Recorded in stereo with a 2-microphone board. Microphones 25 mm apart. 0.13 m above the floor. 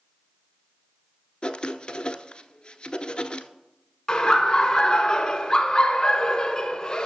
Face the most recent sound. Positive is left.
turn(degrees=30)  # may be behind; listen again after turning